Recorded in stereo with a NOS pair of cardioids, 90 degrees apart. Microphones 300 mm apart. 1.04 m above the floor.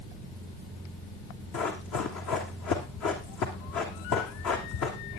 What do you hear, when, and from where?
1.5 s running footsteps: 70° left, 3.5 m